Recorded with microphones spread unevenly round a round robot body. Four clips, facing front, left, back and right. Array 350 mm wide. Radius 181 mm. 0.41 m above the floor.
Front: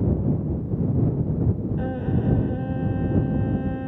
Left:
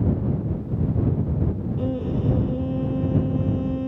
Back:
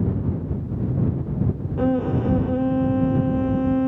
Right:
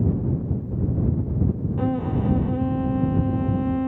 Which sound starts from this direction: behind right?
A violin, at 1.8 s.